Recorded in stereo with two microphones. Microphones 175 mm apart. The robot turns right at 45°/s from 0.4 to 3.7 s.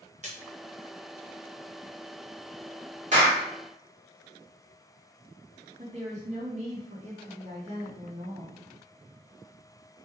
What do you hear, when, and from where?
0.2 s a splash: 40° right (ahead or behind), 1.1 m
3.1 s a clap: 45° right (ahead or behind), 2 m; by 3.4 s 30° right (ahead or behind), 2 m
5.8 s a woman speaking: 40° right (ahead or behind), 2.0 m